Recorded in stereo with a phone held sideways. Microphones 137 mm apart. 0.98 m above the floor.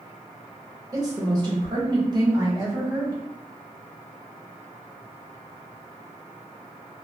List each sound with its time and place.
0.9 s a woman speaking: 30° right (ahead or behind), 0.8 m; by 3.2 s 25° right (ahead or behind), 1.4 m